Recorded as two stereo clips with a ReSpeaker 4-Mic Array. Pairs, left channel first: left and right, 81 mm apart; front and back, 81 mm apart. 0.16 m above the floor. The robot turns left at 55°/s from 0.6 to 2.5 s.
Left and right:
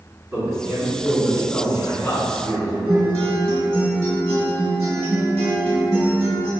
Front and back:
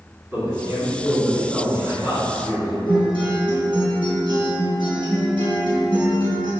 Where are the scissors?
I don't hear scissors.